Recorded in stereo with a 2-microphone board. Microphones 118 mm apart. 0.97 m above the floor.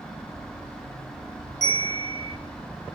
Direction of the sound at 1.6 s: 20° right (ahead or behind).